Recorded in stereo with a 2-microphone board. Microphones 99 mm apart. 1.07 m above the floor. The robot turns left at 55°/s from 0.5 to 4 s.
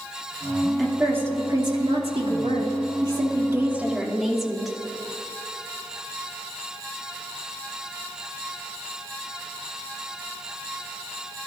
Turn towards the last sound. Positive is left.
turn(degrees=180)